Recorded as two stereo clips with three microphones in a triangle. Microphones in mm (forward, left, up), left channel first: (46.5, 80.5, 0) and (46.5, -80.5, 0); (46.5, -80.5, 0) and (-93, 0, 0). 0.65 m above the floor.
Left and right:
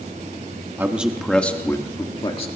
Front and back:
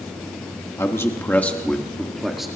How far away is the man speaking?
About 1.2 m.